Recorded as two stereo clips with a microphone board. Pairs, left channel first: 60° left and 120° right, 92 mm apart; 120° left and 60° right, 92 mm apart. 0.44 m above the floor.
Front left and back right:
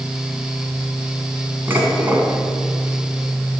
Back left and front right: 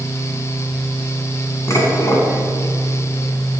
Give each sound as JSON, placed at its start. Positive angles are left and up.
{"t": 1.7, "sound": "dishes clattering", "azimuth_deg": 175, "distance_m": 2.5}